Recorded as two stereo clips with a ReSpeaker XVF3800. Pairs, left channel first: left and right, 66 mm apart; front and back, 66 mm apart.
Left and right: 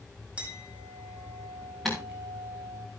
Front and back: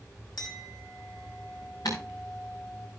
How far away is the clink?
About 4 m.